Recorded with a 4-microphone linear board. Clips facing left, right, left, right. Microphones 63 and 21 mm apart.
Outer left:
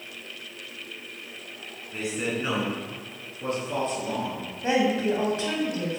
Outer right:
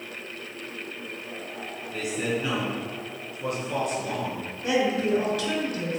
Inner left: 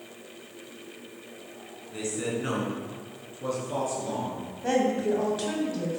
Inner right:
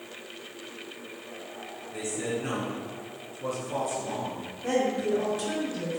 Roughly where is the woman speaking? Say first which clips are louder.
Outer left 1 dB, inner left 2 dB; left.